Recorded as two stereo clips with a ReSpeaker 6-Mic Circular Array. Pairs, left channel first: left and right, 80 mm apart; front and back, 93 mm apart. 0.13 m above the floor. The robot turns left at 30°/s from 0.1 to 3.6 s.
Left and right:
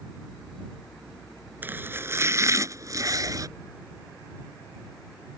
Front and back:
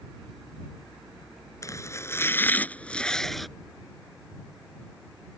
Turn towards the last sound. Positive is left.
turn(degrees=-95)